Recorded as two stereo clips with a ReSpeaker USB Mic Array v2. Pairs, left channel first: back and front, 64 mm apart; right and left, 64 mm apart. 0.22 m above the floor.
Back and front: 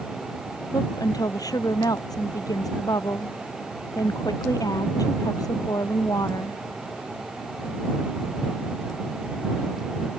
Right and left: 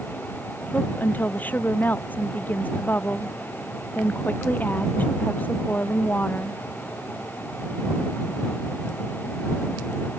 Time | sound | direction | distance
0.7 | a woman speaking | 155° right | ?